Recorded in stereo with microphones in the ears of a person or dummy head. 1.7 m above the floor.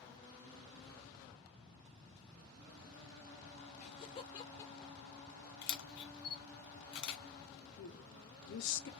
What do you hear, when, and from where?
3.8 s laughter: 40° left (ahead or behind), 1.8 m; by 5.5 s 10° right (ahead or behind), 1.3 m
5.6 s a camera shutter: 55° left (ahead or behind), 0.7 m
7.8 s a woman speaking: 70° left (ahead or behind), 0.9 m